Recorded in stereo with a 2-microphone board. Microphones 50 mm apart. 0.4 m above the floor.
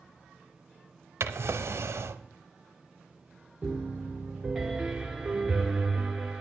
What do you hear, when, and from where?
1.2 s a drawer: 60° right (ahead or behind), 0.5 m
3.6 s a piano: 5° right (ahead or behind), 0.9 m